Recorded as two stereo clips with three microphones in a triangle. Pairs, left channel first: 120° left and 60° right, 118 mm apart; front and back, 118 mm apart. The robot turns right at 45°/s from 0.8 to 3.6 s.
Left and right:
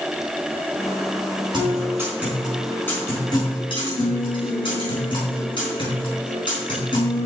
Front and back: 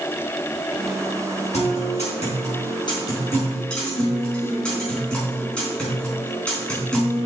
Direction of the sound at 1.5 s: 10° right.